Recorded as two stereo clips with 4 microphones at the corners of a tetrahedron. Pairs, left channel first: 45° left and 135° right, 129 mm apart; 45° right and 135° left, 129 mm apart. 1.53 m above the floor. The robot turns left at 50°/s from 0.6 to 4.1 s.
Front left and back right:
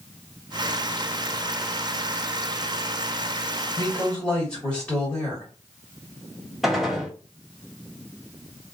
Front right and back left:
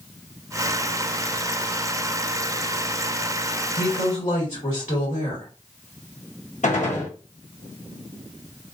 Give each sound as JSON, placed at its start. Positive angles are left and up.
{"t": 3.8, "sound": "a woman speaking", "azimuth_deg": -15, "distance_m": 1.6}
{"t": 6.6, "sound": "a gunshot", "azimuth_deg": -45, "distance_m": 0.9}